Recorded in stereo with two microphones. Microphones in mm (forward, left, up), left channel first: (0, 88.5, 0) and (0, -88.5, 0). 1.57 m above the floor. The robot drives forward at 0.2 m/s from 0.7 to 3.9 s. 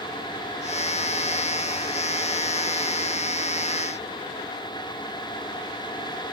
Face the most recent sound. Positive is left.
No sound to turn to.